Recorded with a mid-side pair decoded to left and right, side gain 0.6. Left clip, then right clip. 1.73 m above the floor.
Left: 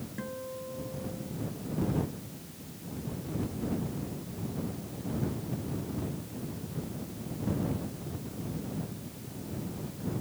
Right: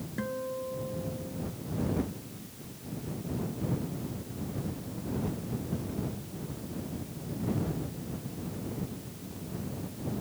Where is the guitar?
25° right.